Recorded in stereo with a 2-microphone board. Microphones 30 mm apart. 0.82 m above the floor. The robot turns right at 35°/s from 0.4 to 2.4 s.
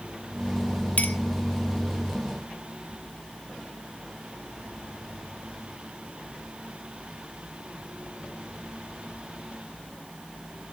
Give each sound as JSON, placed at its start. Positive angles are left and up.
{"t": 1.0, "sound": "a clink", "side_deg": 65, "distance_m": 0.8}